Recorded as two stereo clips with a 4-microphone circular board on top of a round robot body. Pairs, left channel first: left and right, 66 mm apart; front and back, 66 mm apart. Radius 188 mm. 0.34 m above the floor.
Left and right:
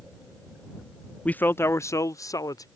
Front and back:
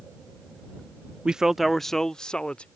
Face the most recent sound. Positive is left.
turn(degrees=75)